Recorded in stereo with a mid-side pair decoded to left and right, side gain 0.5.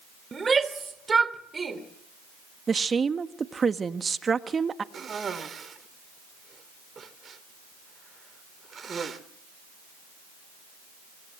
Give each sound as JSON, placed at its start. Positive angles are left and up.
{"t": 0.3, "sound": "a shout", "azimuth_deg": -30, "distance_m": 3.5}
{"t": 2.7, "sound": "a woman speaking", "azimuth_deg": -30, "distance_m": 1.6}
{"t": 4.9, "sound": "a cough", "azimuth_deg": -40, "distance_m": 3.0}